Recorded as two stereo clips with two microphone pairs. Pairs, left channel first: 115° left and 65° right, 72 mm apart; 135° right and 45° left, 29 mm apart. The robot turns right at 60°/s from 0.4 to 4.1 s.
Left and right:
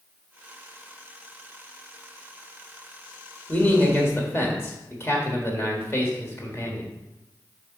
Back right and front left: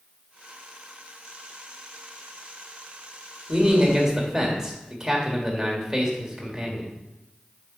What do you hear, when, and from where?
3.5 s a man speaking: 60° left, 1.5 m; by 7.0 s 95° left, 1.5 m